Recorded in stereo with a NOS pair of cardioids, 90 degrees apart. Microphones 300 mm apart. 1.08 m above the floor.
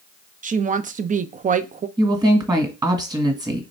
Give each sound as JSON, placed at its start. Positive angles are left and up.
{"t": 0.4, "sound": "a woman speaking", "azimuth_deg": -30, "distance_m": 0.5}
{"t": 2.0, "sound": "a woman speaking", "azimuth_deg": -15, "distance_m": 1.6}